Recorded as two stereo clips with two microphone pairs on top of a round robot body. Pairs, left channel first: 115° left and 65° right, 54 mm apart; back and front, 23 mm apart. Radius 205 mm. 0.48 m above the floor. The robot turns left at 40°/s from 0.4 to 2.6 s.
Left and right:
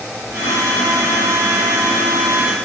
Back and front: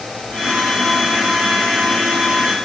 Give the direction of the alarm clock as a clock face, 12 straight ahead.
No alarm clock in this recording.